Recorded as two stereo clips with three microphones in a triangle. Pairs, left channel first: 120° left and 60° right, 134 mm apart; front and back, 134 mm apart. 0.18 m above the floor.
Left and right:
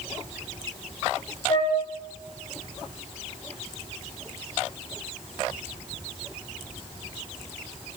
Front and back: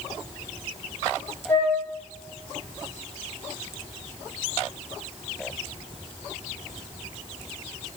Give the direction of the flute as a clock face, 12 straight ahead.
9 o'clock.